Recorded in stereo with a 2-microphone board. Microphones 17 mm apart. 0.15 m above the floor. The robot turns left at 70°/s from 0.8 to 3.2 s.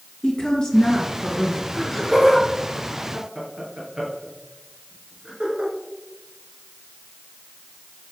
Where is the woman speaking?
130° left, 2 m; by 1.6 s 70° left, 2 m.